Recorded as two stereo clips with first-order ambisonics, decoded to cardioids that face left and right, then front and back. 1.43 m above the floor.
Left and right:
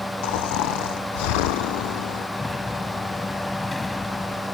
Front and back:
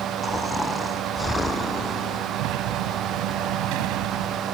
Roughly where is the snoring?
Left.